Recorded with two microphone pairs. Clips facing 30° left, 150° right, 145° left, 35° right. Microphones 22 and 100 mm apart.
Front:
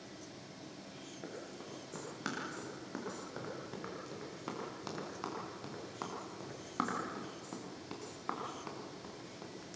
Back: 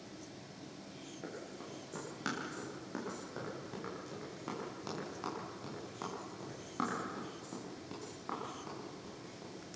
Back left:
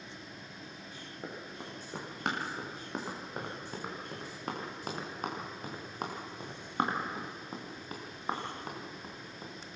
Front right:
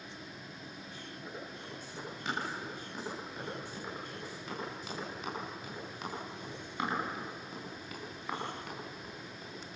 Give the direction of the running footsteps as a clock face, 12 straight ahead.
8 o'clock.